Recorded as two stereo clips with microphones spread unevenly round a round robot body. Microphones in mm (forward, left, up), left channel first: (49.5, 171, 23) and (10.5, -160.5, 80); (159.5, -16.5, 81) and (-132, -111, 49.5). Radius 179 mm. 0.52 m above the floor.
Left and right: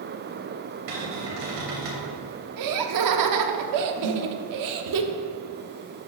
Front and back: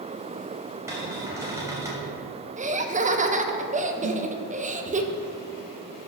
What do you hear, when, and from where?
0.9 s a cupboard door: 80° right, 3 m
2.6 s laughter: 110° right, 1.0 m
4.0 s a snare drum: 130° right, 1.0 m